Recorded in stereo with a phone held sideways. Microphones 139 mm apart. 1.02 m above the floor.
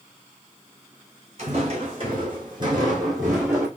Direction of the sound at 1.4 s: 50° right (ahead or behind).